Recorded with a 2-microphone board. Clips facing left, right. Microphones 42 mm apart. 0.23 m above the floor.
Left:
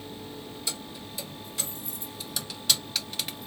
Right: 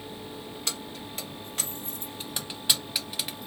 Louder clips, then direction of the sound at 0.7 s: Right 3 dB; 60° right (ahead or behind).